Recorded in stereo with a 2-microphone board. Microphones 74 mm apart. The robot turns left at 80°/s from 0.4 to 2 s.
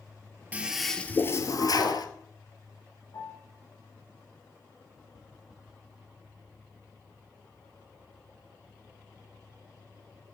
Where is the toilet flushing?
160° right, 1.1 m; by 2.1 s 85° left, 1.1 m.